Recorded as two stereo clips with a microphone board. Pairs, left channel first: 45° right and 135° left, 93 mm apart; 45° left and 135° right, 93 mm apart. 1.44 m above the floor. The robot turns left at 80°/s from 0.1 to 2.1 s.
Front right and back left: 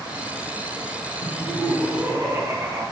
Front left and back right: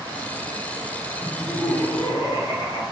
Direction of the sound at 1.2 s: 150° left.